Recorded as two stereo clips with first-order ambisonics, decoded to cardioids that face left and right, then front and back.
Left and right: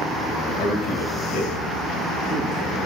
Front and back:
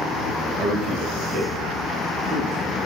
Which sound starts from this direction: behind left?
A man speaking, at 0.6 s.